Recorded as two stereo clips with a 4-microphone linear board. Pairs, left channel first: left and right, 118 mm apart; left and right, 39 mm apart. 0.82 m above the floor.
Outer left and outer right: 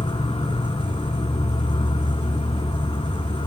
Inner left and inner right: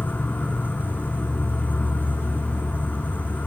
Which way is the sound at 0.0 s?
50° left (ahead or behind).